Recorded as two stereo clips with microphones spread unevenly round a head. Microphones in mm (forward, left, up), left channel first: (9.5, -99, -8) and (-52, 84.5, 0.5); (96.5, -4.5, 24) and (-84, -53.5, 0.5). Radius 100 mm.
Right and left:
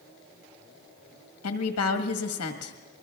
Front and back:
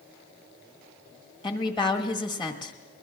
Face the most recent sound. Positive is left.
turn(degrees=-50)